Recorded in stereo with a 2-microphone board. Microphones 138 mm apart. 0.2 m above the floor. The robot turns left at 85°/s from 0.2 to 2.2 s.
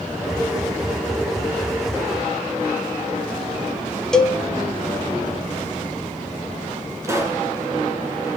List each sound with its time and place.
4.1 s a cowbell: 5° left (ahead or behind), 1.2 m
7.0 s a pop: 20° right (ahead or behind), 2.5 m